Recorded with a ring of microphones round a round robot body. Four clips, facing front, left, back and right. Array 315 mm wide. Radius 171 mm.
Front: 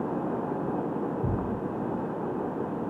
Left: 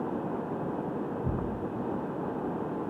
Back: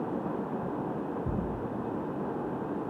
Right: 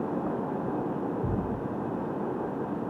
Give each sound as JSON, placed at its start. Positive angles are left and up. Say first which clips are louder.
{"t": 1.2, "sound": "a thud", "louder": "right 2 dB, front 3 dB", "azimuth_deg": -30, "distance_m": 7.0}